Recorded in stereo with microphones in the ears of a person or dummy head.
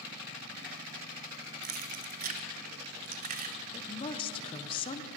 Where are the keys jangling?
35° right (ahead or behind), 0.5 m.